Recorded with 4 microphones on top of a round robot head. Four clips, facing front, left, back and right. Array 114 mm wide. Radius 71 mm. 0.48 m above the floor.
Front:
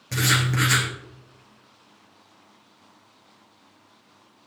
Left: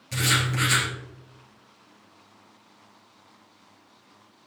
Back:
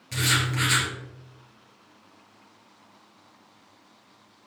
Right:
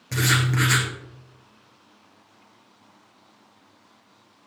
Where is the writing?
50° right, 3 m.